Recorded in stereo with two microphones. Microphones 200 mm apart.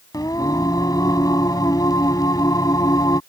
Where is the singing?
20° left (ahead or behind).